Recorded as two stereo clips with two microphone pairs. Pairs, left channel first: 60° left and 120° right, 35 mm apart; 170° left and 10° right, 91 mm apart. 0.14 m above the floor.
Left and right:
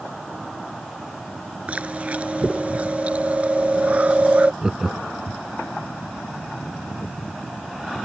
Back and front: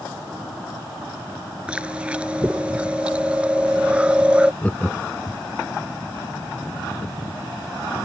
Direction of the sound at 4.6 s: 140° right.